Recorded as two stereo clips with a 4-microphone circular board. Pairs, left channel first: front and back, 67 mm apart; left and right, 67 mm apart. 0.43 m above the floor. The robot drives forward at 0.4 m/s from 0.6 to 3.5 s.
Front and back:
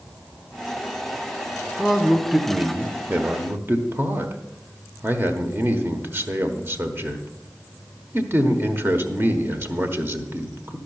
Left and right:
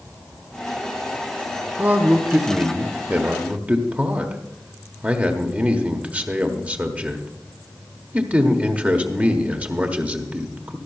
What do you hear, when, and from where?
1.8 s a man speaking: 85° right, 0.9 m; by 10.8 s 150° right, 1.1 m